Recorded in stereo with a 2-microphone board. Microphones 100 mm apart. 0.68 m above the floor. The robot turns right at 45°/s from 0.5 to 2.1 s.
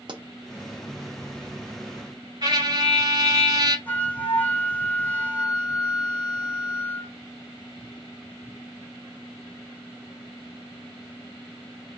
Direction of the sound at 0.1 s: 50° right (ahead or behind).